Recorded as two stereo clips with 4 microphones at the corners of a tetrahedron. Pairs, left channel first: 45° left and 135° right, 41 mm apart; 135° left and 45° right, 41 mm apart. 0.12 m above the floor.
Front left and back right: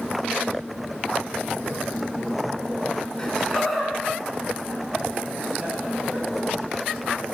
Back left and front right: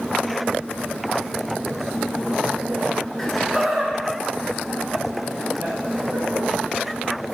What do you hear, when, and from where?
3.2 s laughter: 80° left, 1.2 m; by 6.5 s 80° right, 3 m